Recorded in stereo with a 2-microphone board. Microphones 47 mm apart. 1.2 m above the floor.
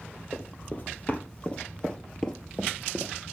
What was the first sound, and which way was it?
Running footsteps, 40° left (ahead or behind).